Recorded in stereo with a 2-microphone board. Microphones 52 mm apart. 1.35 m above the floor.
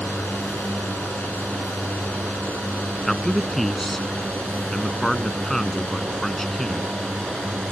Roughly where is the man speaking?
Centre.